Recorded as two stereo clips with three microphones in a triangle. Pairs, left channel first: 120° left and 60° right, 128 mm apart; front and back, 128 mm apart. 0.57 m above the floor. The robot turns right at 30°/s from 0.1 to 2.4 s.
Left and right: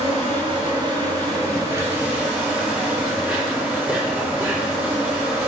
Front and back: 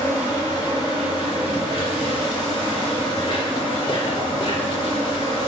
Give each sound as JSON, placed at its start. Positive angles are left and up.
{"t": 0.0, "sound": "an insect", "azimuth_deg": -60, "distance_m": 2.0}